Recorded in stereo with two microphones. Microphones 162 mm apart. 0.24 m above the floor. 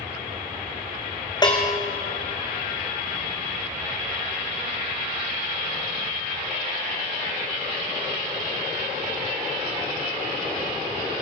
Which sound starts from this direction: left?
A bell, at 1.4 s.